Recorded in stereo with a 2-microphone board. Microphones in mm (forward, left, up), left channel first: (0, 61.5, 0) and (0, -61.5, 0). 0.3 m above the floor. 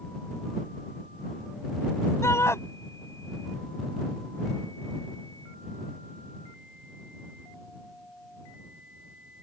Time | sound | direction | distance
2.2 | a shout | 20° left (ahead or behind) | ?